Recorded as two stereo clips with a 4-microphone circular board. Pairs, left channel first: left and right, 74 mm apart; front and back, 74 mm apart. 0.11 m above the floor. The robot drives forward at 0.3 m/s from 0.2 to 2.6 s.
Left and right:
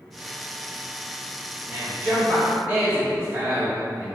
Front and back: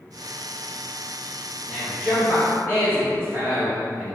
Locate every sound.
1.7 s a man speaking: 135° right, 1.6 m; by 4.2 s 145° right, 1.7 m